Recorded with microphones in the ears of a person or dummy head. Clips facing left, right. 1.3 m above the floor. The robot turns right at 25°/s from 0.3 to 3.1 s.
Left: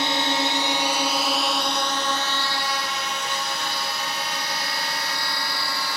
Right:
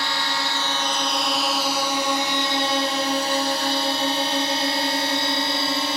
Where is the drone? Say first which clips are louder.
Left 4 dB; 20° left (ahead or behind); by 6.0 s 20° right (ahead or behind).